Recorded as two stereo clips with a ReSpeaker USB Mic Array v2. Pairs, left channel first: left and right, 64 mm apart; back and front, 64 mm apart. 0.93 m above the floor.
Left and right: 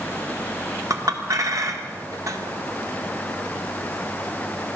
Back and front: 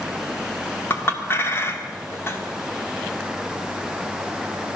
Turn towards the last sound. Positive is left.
turn(degrees=-125)